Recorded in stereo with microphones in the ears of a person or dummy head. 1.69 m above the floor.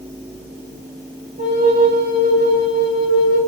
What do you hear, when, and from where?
1.4 s a flute: 35° right (ahead or behind), 2.5 m